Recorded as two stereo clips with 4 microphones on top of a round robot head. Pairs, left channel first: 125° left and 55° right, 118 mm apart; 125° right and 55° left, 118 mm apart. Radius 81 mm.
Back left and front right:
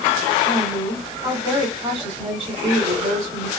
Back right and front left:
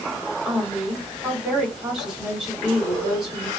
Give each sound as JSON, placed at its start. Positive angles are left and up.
{"t": 0.5, "sound": "a woman speaking", "azimuth_deg": -30, "distance_m": 1.7}